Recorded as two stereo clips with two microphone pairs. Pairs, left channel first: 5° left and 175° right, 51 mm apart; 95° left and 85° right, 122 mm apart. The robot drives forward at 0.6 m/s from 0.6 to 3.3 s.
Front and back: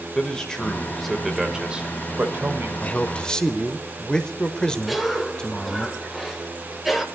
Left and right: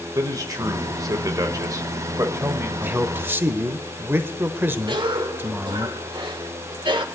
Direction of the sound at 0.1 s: 60° right.